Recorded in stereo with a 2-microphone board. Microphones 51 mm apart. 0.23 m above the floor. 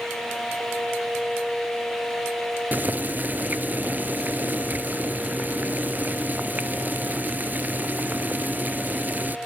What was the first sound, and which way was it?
Boiling, 35° right (ahead or behind).